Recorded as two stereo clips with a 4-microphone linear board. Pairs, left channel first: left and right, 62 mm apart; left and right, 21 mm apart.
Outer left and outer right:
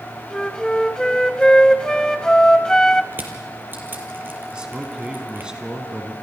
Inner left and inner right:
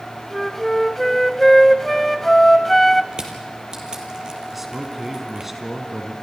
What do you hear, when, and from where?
0.3 s a flute: 10° left (ahead or behind), 1.0 m
3.1 s crushing: 35° right (ahead or behind), 3 m
4.5 s a man speaking: 15° right (ahead or behind), 2.5 m